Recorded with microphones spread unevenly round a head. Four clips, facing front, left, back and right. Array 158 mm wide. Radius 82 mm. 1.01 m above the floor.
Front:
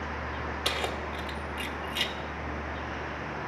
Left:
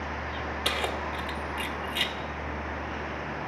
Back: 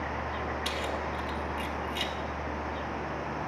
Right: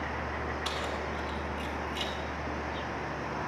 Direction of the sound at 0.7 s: 50° left.